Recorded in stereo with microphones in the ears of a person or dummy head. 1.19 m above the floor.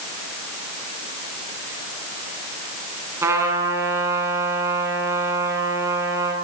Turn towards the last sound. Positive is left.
turn(degrees=-20)  # may be behind; listen again after turning